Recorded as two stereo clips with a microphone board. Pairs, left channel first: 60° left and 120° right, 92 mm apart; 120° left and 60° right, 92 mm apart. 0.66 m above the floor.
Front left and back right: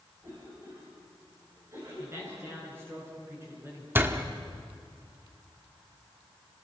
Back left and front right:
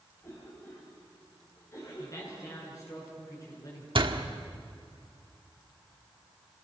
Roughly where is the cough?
Behind.